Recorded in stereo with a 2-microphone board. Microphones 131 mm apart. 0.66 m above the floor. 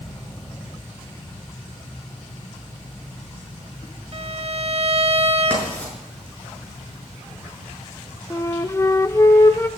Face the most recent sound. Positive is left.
turn(degrees=20)  # may be behind; listen again after turning